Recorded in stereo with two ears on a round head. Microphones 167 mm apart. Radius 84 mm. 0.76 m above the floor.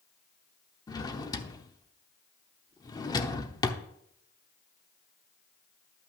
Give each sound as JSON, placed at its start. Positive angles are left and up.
{"t": 0.9, "sound": "a drawer", "side_deg": 20, "distance_m": 0.8}